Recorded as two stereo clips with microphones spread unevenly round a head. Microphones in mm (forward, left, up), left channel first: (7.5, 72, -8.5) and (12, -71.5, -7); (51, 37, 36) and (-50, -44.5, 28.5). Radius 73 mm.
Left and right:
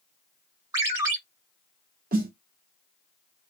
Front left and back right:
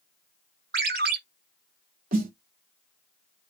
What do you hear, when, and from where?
0.7 s a ringtone: 150° right, 1.6 m
2.1 s a snare drum: 120° right, 1.6 m